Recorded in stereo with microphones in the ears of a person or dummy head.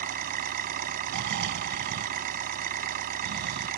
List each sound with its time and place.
0.0 s an engine running: 50° right (ahead or behind)
1.1 s snoring: 60° right (ahead or behind)